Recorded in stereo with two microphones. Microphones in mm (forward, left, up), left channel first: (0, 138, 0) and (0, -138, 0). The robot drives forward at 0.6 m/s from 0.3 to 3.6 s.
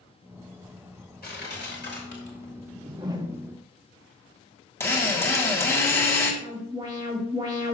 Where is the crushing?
35° left (ahead or behind), 3 m; by 2.5 s 45° left (ahead or behind), 2.5 m.